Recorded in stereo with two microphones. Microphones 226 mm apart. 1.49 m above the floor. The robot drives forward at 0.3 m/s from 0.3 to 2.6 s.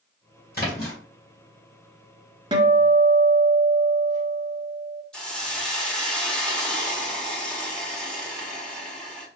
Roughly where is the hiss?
Centre.